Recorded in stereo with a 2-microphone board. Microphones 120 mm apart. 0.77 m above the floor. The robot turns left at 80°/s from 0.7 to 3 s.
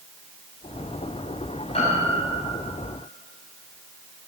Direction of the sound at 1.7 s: 125° left.